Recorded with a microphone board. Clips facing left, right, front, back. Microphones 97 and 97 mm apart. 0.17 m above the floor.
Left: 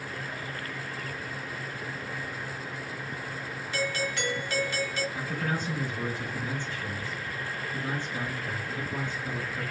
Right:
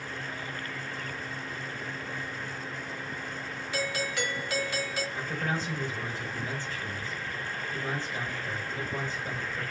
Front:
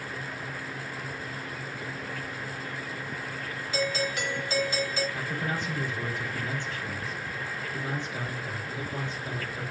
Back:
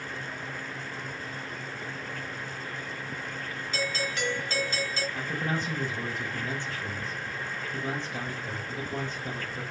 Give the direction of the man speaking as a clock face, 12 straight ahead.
6 o'clock.